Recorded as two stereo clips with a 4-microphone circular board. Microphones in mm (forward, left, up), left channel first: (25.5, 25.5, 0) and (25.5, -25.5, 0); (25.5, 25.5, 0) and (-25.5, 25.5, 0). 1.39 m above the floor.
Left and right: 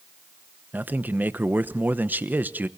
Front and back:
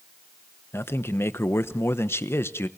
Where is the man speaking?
35° right, 1.0 m.